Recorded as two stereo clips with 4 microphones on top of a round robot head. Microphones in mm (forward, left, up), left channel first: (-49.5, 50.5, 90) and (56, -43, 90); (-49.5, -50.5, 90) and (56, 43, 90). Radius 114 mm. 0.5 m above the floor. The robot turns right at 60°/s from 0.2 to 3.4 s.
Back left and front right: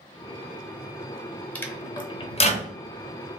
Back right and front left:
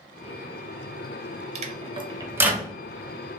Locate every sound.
1.6 s a microwave: 60° left, 0.7 m; by 2.7 s 130° left, 0.7 m